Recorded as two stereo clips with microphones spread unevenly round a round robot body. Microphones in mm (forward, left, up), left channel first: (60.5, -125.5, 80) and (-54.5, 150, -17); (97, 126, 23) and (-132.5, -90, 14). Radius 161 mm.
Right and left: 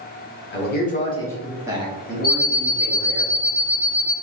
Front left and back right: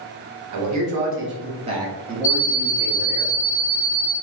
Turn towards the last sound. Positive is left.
turn(degrees=5)